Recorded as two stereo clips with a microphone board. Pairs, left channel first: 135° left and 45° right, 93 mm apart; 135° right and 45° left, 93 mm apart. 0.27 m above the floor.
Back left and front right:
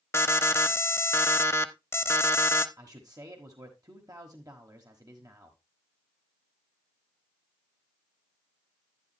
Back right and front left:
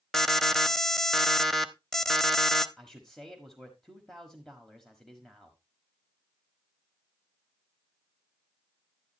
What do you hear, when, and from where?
0.1 s an alarm: 145° left, 0.7 m
2.8 s a man speaking: 50° right, 1.3 m